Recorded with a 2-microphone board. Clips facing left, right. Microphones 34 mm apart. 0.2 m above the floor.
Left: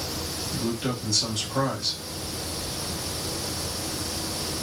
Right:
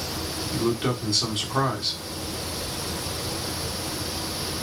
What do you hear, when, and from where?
0.5 s a man speaking: 35° right (ahead or behind), 1.3 m